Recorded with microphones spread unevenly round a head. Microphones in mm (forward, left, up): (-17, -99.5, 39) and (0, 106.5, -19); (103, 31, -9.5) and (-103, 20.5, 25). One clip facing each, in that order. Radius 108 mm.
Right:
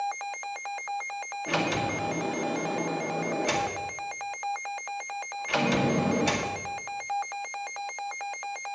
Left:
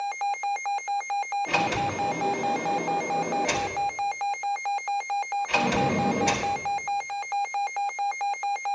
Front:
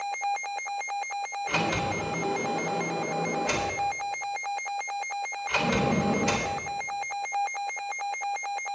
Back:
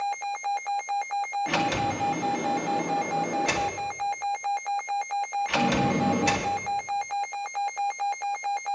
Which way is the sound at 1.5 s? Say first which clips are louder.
Right 2 dB, back 1 dB; 175° right.